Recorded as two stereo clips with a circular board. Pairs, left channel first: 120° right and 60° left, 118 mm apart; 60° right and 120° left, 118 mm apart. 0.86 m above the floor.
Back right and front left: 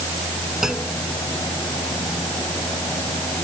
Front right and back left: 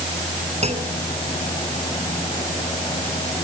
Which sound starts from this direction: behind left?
A clunk, at 0.6 s.